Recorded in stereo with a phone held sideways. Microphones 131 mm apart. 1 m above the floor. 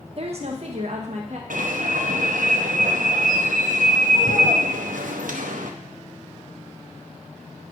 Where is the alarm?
85° right, 0.7 m.